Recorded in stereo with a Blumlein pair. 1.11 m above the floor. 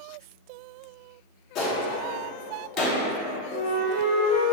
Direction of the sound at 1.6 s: 40° left.